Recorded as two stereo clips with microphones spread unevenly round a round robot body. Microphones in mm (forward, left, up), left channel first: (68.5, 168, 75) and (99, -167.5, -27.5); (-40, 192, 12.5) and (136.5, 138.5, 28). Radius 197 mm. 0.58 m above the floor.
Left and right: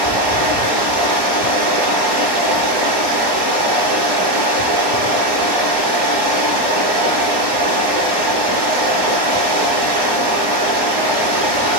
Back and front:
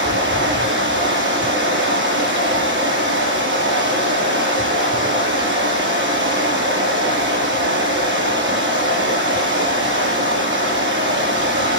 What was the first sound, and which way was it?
Running water, 75° right.